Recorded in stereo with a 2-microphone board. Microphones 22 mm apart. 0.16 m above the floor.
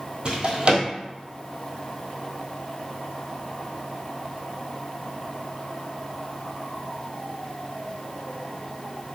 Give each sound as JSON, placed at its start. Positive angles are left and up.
{"t": 0.2, "sound": "a drawer", "side_deg": -40, "distance_m": 1.3}